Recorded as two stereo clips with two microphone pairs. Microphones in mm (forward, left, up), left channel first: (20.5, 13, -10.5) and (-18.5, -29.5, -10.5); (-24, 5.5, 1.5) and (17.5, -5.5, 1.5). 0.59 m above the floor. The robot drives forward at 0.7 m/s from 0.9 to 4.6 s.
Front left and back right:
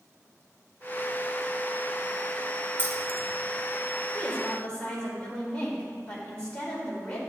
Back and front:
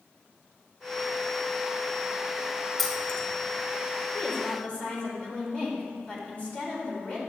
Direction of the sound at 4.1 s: 105° left.